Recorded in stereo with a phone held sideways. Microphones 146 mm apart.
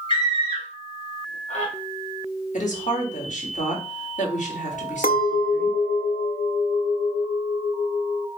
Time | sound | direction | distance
0.1 | a scream | 35° left (ahead or behind) | 1.2 m
2.5 | a woman speaking | 60° left (ahead or behind) | 1.6 m
5.0 | a clink | 80° left | 0.5 m